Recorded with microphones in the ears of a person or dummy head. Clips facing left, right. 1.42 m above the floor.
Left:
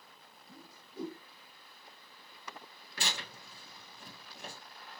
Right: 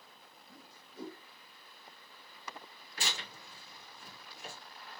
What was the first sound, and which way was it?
A whoosh, 40° left (ahead or behind).